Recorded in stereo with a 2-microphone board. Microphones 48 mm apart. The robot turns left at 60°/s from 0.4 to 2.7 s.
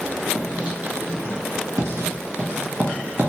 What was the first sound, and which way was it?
Writing, centre (ahead or behind).